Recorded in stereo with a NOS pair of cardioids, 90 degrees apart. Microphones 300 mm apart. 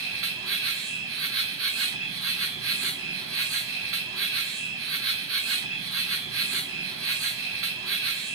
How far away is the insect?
About 0.9 m.